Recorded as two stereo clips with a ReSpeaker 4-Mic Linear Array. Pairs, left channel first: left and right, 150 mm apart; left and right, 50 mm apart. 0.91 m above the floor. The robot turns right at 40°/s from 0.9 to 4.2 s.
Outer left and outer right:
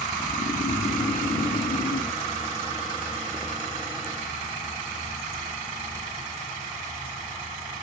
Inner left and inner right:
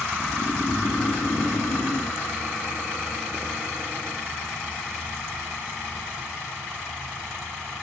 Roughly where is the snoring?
Left.